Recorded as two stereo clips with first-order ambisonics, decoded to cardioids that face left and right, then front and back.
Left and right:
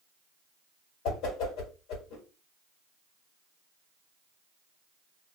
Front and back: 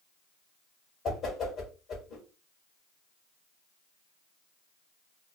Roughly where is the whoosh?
Ahead left.